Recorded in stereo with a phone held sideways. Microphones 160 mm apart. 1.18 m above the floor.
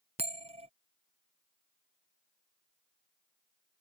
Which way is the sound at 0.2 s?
40° right (ahead or behind).